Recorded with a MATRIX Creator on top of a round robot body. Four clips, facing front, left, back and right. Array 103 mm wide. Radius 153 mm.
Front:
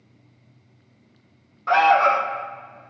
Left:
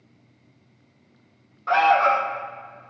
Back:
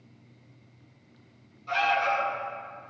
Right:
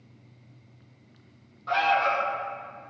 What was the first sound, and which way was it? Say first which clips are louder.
An alarm: left 6 dB, front 10 dB; 25° left.